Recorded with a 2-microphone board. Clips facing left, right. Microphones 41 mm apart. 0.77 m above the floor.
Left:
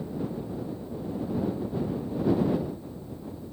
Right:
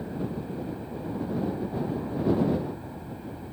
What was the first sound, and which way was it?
An aircraft, 65° right (ahead or behind).